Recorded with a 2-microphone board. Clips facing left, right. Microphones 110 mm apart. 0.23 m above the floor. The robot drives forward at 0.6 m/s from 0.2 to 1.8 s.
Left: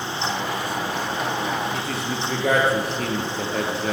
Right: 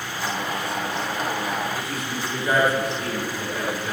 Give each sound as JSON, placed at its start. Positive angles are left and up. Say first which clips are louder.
{"t": 1.7, "sound": "a man speaking", "louder": "left 2 dB", "side_deg": 70, "distance_m": 4.0}